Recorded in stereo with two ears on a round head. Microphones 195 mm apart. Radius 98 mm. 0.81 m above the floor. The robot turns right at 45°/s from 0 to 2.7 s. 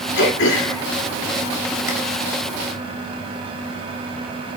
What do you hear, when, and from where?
0.2 s throat clearing: 55° left (ahead or behind), 2 m; by 1.9 s 35° left (ahead or behind), 2 m